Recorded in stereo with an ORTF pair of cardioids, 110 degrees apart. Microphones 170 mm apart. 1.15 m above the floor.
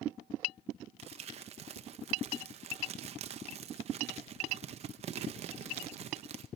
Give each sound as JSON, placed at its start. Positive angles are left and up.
{"t": 1.0, "sound": "crumpling", "azimuth_deg": -40, "distance_m": 0.7}